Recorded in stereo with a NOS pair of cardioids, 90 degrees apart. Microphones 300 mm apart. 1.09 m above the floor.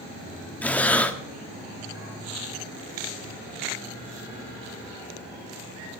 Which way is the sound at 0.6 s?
5° left.